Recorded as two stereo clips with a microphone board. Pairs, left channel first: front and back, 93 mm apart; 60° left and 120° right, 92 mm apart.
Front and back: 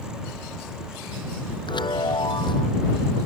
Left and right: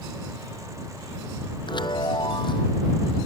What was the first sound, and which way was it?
A chime, 30° left.